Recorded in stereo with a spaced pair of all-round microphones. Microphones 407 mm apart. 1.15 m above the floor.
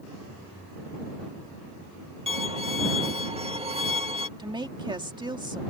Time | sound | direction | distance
2.3 | a violin | 15° right (ahead or behind) | ?
4.4 | a woman speaking | 10° right (ahead or behind) | ?